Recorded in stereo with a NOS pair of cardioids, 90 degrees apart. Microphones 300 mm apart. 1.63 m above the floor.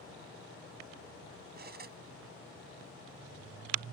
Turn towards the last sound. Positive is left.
turn(degrees=-35)